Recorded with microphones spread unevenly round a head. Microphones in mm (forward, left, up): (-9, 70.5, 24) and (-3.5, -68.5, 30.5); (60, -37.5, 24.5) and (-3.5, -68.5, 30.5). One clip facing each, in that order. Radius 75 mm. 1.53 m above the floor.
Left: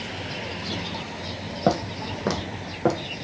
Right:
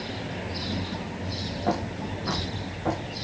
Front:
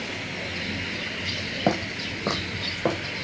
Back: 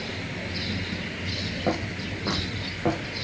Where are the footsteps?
90° left, 3 m; by 3.2 s 105° left, 4 m.